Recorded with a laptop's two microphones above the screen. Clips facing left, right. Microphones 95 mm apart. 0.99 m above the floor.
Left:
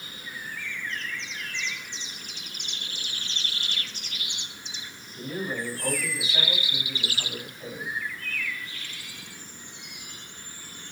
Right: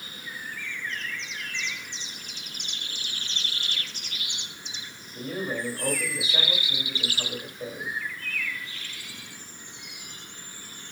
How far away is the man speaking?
About 2 m.